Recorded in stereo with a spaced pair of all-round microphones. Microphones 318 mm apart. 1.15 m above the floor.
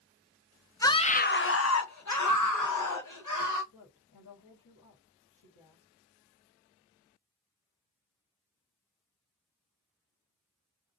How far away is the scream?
About 0.6 m.